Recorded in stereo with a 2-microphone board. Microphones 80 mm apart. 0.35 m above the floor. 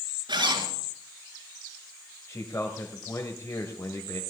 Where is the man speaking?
35° left (ahead or behind), 1.6 m.